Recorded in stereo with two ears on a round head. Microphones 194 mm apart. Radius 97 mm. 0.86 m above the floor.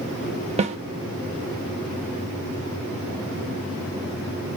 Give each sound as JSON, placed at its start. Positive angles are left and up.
{"t": 0.6, "sound": "a snare drum", "side_deg": -30, "distance_m": 0.7}